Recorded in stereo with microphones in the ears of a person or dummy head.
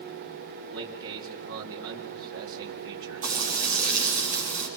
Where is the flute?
I don't hear a flute.